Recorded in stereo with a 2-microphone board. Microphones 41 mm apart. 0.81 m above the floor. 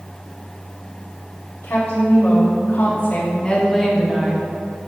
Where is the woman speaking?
65° left (ahead or behind), 1.9 m; by 4.5 s 20° right (ahead or behind), 1.1 m.